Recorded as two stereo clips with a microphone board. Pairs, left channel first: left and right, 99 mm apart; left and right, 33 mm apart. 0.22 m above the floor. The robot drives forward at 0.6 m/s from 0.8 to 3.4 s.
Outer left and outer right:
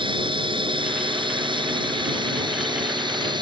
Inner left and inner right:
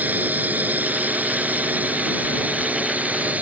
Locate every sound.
0.0 s a drone: 55° right (ahead or behind); by 3.4 s 50° right (ahead or behind)